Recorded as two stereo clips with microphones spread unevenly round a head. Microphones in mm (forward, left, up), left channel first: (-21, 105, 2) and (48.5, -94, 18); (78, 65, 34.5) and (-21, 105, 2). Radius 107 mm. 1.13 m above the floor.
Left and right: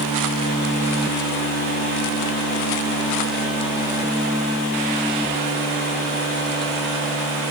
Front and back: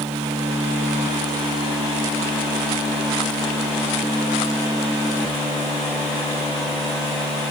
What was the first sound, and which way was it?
Only background noise.